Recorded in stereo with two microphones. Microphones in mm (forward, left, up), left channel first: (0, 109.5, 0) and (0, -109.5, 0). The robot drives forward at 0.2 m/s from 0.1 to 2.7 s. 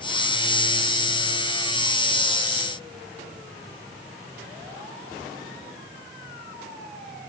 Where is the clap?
No clap in this recording.